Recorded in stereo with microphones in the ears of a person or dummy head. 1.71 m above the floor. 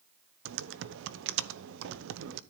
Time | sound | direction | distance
0.5 | typing on a keyboard | 65° right (ahead or behind) | 0.8 m